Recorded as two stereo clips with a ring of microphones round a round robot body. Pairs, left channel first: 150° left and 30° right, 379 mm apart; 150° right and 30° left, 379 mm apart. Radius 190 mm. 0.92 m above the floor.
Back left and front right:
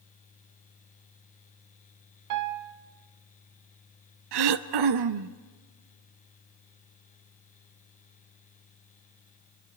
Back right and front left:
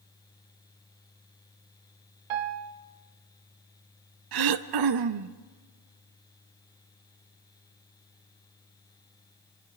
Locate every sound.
2.3 s a piano: 15° left, 1.1 m
4.3 s throat clearing: straight ahead, 0.8 m